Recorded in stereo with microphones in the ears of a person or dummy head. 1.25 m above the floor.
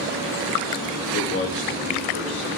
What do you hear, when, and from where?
1.1 s a man speaking: 45° left (ahead or behind), 1.0 m; by 2.5 s 65° left (ahead or behind), 2.5 m